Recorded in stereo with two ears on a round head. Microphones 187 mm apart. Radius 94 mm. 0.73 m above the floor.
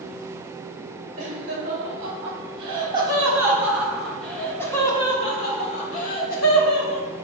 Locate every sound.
1.2 s laughter: 40° right (ahead or behind), 2 m; by 7.0 s 50° left (ahead or behind), 1.9 m